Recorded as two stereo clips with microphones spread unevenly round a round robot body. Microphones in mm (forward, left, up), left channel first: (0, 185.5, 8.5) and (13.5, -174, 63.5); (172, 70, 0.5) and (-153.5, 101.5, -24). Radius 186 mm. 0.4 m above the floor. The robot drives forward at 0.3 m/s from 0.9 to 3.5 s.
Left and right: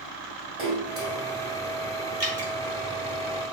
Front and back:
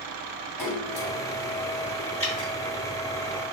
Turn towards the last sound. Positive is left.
turn(degrees=-140)